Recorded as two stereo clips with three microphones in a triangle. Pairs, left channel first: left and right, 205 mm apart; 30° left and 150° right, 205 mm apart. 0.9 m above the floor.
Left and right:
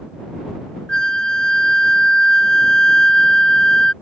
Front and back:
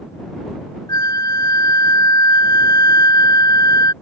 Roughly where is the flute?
Ahead.